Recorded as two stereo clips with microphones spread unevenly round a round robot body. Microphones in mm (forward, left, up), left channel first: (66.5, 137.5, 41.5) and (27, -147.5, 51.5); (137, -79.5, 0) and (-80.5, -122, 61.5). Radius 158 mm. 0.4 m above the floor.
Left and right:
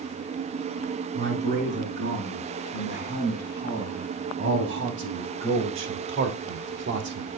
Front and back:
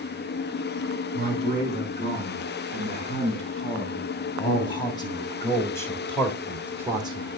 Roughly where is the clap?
No clap in this recording.